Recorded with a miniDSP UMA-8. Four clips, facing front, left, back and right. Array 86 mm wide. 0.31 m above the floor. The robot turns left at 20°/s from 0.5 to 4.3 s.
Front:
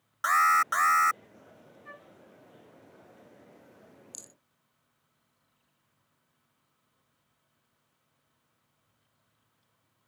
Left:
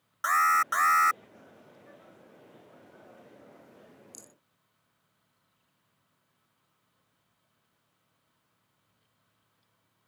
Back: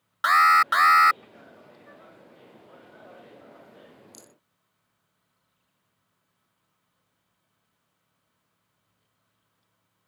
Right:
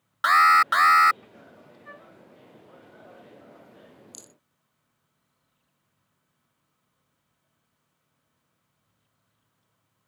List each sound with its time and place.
0.2 s an alarm: 130° right; by 1.2 s 140° right
1.9 s a flute: 65° right; by 2.1 s 70° right
4.1 s a rattle: 80° right; by 4.3 s 85° right